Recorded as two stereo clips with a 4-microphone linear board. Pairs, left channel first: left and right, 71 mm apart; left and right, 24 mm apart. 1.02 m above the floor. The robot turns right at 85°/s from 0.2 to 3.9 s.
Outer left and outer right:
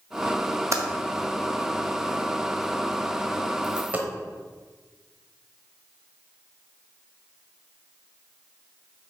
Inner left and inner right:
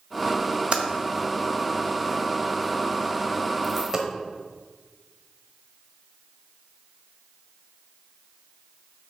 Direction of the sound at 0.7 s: 40° right (ahead or behind).